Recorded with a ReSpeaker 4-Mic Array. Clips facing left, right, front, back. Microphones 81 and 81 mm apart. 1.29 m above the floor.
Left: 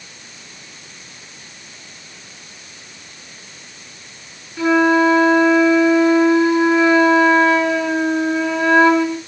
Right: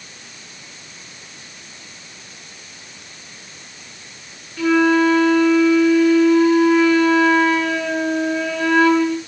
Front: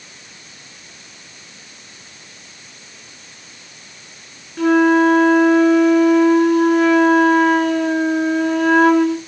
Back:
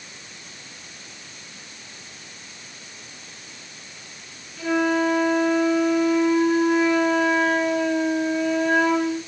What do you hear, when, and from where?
4.6 s a flute: 25° left, 2.5 m